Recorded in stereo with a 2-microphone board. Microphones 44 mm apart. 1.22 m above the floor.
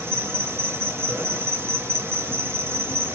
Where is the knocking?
I don't hear knocking.